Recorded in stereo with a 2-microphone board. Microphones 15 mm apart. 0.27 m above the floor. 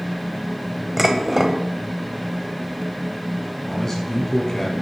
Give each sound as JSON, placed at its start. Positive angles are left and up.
{"t": 1.0, "sound": "dishes clattering", "side_deg": -15, "distance_m": 0.9}
{"t": 3.7, "sound": "a man speaking", "side_deg": 20, "distance_m": 2.5}